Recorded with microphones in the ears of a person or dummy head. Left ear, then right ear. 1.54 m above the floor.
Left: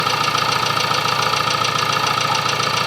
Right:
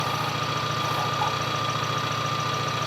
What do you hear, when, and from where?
0.0 s an engine running: 55° left (ahead or behind), 2.5 m